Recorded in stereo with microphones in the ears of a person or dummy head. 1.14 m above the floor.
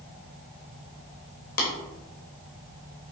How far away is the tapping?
About 1.1 m.